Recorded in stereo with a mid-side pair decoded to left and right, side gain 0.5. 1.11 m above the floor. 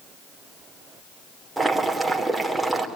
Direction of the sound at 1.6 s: 10° right.